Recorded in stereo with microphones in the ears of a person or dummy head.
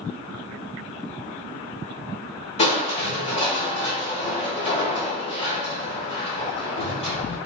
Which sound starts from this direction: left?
Crushing, at 2.6 s.